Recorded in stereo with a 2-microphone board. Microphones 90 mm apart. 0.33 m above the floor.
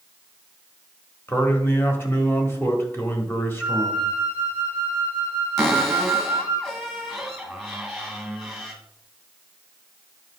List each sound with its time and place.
1.3 s a man speaking: 25° left (ahead or behind), 1.6 m
3.6 s a flute: 65° left (ahead or behind), 5 m
5.6 s a cupboard door: centre (ahead or behind), 1.7 m